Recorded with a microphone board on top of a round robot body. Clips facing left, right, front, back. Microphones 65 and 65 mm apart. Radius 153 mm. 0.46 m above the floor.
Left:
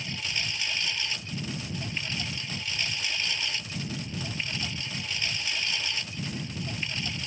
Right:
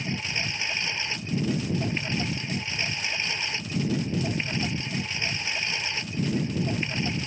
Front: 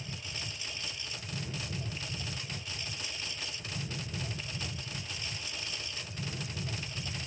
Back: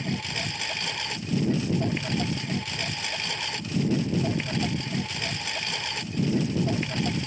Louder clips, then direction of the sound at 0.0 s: Right 4 dB, back 12 dB; 155° right.